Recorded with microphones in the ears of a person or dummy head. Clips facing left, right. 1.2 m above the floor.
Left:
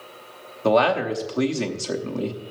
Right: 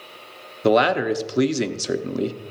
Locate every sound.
0.6 s a man speaking: 20° right (ahead or behind), 0.7 m